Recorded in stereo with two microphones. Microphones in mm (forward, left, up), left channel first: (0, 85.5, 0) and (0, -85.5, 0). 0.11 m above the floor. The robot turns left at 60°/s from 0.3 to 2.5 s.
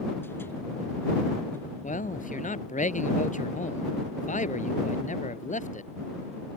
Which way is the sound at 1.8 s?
110° left.